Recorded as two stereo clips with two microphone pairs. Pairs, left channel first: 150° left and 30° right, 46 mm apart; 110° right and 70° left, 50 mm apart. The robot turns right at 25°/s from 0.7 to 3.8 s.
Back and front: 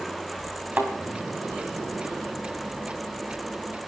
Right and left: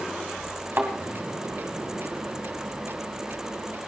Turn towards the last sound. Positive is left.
turn(degrees=100)